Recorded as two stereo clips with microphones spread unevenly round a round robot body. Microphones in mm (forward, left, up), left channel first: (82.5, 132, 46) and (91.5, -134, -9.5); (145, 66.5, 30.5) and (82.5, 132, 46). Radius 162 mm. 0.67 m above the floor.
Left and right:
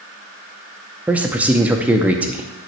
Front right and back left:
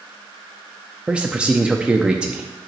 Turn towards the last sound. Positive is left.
turn(degrees=-135)